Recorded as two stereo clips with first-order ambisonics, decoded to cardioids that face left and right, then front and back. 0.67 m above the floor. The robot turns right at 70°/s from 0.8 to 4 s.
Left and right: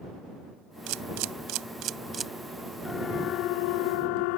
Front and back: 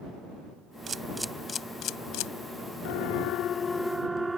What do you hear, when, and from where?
0.9 s a camera shutter: 115° right; by 2.3 s 10° right
2.9 s a siren: 10° left; by 4.4 s 95° left